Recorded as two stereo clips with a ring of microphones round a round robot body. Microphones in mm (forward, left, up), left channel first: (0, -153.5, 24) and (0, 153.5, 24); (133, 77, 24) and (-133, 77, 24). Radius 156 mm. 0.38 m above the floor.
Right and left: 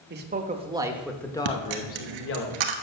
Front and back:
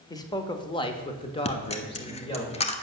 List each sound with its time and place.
0.1 s a man speaking: 70° left, 1.1 m; by 2.5 s 65° right, 1.2 m
1.4 s a dropped coin: 70° left, 1.0 m